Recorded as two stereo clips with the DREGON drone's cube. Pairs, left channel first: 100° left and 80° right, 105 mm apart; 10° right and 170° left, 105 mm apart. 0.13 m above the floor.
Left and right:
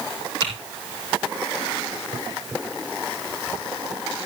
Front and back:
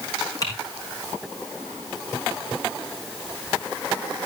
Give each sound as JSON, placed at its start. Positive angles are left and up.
{"t": 0.4, "sound": "typing on a keyboard", "azimuth_deg": 45, "distance_m": 4.5}